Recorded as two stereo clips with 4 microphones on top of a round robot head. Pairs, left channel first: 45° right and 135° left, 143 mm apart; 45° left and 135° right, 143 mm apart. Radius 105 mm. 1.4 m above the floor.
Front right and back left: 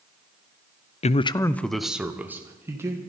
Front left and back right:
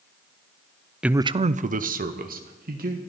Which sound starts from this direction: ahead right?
A man speaking, at 1.0 s.